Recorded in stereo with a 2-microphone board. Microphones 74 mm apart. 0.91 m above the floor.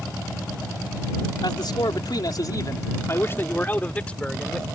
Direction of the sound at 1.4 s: 75° left (ahead or behind).